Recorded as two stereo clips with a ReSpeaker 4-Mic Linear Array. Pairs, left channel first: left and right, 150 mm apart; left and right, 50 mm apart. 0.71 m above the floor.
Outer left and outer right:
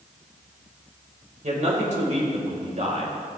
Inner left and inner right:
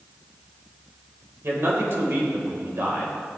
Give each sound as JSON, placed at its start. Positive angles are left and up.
{"t": 1.4, "sound": "a man speaking", "side_deg": -50, "distance_m": 4.0}